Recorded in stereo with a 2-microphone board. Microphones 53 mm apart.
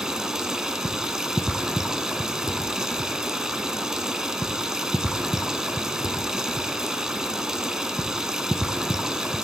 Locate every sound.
0.0 s running water: 10° right (ahead or behind), 0.7 m